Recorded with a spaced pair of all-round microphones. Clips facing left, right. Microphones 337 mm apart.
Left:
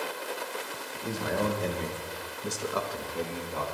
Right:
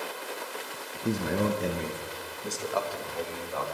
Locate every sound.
1.1 s a man speaking: 45° right (ahead or behind), 1.2 m; by 3.6 s 40° left (ahead or behind), 2 m